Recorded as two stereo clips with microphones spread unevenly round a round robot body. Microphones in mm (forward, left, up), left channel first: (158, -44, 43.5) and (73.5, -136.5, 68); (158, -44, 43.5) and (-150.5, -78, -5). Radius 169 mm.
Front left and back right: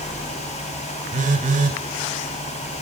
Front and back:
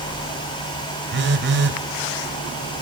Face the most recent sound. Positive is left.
turn(degrees=-120)